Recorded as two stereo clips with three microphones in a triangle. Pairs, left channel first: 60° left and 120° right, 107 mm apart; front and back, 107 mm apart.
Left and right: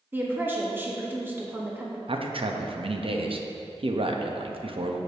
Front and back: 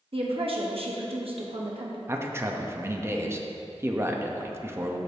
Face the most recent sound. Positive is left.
turn(degrees=-120)